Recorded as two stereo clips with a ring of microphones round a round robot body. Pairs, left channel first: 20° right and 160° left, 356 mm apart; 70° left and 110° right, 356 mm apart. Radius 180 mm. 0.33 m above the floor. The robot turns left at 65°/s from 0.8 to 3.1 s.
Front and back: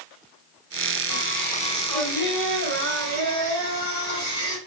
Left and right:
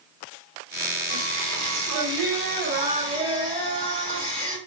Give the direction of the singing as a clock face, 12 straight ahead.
2 o'clock.